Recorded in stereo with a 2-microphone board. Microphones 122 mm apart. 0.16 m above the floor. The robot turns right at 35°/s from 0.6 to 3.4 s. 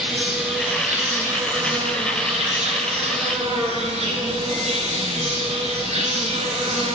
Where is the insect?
175° right, 1.8 m; by 7.0 s 80° right, 1.8 m.